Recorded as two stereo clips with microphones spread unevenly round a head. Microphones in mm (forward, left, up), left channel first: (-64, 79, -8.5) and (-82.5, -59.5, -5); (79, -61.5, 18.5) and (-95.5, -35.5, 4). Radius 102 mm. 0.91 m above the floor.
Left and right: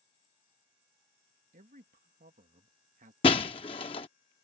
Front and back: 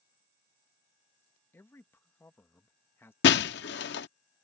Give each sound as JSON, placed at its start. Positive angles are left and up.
{"t": 1.5, "sound": "a man speaking", "azimuth_deg": -85}
{"t": 3.2, "sound": "breaking glass", "azimuth_deg": 20}